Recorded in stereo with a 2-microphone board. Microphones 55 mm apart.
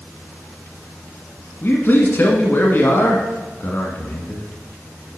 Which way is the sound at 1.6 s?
40° left (ahead or behind).